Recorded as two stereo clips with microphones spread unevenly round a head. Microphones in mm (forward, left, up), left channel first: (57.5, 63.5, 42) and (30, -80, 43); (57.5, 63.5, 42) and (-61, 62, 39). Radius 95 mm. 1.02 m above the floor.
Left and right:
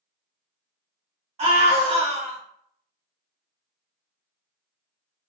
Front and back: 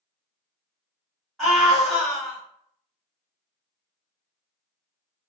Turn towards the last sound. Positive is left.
turn(degrees=-90)